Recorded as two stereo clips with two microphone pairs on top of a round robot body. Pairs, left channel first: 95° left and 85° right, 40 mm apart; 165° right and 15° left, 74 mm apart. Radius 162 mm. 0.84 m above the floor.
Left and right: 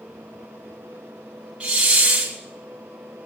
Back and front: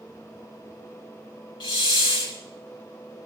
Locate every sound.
1.6 s a hiss: 160° right, 1.1 m